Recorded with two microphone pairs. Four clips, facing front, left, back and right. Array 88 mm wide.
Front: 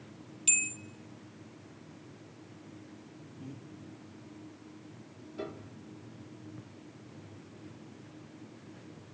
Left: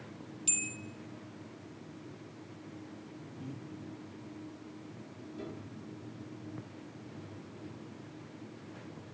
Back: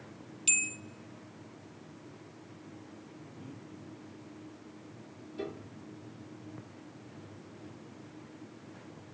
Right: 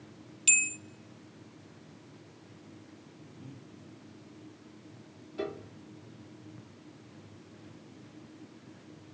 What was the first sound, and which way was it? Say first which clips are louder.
A bell: right 10 dB, back 1 dB; 105° right.